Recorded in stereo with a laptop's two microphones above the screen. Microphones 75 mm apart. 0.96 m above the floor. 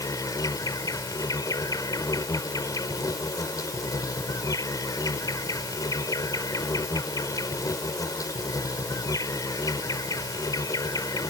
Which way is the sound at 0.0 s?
50° left (ahead or behind).